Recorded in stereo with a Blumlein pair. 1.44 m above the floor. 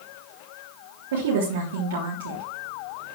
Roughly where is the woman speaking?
Ahead right.